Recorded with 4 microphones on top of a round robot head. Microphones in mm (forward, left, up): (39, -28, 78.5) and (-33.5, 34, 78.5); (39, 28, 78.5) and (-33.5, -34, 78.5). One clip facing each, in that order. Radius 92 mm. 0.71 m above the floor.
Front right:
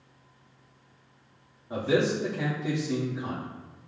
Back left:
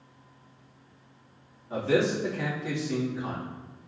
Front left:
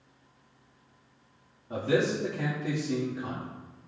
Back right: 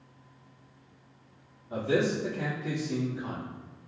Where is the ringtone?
I don't hear a ringtone.